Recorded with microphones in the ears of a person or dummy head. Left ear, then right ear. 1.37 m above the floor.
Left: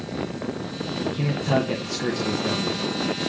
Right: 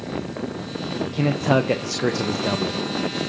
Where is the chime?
No chime in this recording.